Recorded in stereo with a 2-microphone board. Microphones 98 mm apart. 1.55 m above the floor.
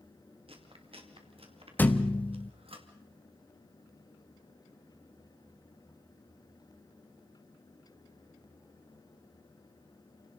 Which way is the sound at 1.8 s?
20° left (ahead or behind).